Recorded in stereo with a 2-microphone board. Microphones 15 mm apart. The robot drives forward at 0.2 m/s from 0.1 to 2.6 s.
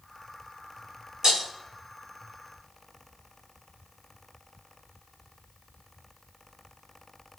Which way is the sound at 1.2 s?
50° right (ahead or behind).